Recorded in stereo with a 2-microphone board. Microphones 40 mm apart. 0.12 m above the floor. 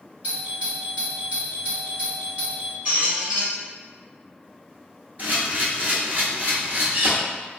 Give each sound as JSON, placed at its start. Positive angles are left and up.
{"t": 0.2, "sound": "a doorbell", "side_deg": -35, "distance_m": 1.8}
{"t": 2.9, "sound": "a squeak", "side_deg": -45, "distance_m": 1.5}
{"t": 5.2, "sound": "a camera shutter", "side_deg": -45, "distance_m": 1.0}